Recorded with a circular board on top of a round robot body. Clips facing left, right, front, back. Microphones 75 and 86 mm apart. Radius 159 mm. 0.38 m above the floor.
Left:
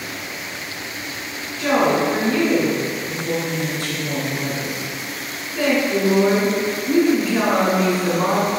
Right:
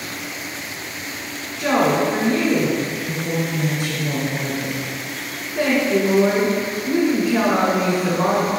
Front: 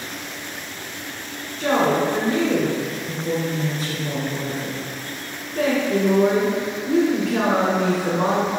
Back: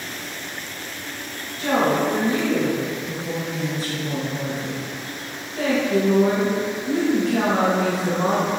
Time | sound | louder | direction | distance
1.6 | a woman speaking | even, front 1 dB | 5° right | 2.5 m